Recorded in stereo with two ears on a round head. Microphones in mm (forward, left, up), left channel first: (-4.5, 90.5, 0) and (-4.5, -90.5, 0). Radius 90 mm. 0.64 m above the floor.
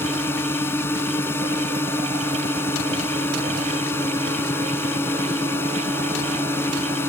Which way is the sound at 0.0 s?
15° left (ahead or behind).